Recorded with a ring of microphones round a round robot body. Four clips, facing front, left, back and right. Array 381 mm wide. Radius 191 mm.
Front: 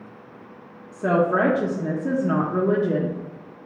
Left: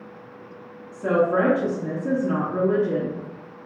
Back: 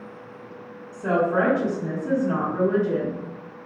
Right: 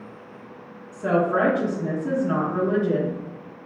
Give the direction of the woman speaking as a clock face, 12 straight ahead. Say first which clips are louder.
Left 1 dB, front 2 dB; 12 o'clock.